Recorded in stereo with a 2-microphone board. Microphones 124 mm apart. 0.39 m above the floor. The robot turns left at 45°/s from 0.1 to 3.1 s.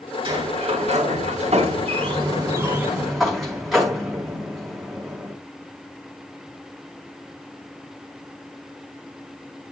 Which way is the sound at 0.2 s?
50° right.